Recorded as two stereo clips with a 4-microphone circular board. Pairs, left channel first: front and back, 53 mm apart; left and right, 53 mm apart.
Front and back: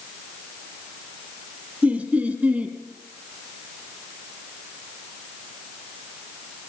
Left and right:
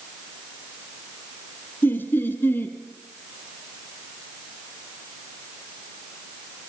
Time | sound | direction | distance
1.8 | laughter | 125° left | 1.9 m